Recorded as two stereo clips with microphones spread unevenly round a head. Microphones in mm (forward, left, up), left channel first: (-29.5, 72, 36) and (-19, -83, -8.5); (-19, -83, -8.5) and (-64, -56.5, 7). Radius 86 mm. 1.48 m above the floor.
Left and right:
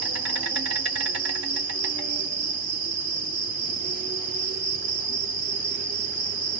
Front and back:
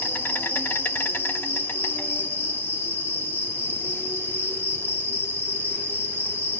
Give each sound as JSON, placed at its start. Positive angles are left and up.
{"t": 0.0, "sound": "an insect", "azimuth_deg": -85, "distance_m": 1.4}